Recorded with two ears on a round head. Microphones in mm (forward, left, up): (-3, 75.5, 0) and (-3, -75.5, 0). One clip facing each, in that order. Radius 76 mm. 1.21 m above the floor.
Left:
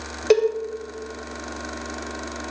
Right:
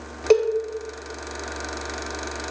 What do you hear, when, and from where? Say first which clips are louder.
0.3 s a cowbell: even; 5° left (ahead or behind), 0.6 m